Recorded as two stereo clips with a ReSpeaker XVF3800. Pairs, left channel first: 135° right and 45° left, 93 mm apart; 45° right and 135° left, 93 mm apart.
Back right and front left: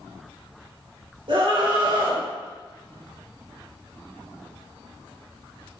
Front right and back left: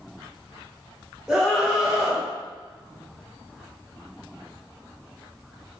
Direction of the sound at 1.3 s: 50° left.